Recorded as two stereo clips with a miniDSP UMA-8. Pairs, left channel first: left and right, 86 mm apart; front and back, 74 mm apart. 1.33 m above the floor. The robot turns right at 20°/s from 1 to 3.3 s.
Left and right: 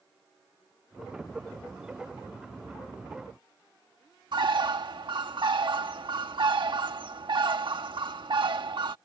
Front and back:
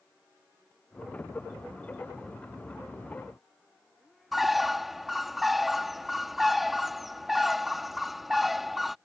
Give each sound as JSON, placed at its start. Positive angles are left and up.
{"t": 4.3, "sound": "a bird", "azimuth_deg": -95}